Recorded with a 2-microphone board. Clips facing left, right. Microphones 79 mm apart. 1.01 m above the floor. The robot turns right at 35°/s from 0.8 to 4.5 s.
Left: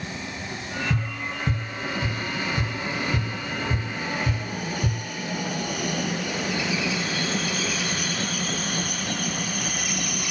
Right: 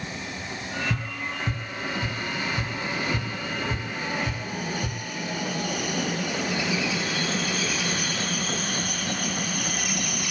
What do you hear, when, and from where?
0.9 s tapping: 10° left (ahead or behind), 1.1 m; by 5.0 s 25° left (ahead or behind), 1.1 m